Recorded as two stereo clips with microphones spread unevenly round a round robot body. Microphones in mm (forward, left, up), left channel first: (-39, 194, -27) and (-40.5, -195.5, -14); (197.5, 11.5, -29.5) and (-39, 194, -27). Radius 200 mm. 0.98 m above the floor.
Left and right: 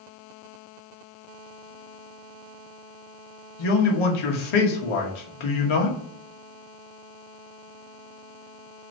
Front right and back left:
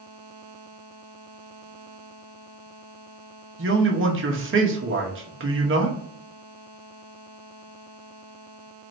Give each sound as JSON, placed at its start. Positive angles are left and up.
{"t": 3.6, "sound": "a man speaking", "azimuth_deg": 95, "distance_m": 1.1}